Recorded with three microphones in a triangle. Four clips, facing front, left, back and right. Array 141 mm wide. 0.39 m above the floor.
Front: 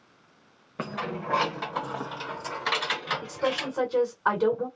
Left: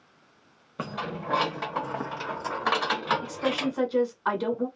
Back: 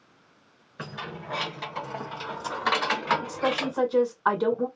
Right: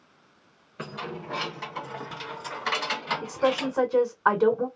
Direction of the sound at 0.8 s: 40° left.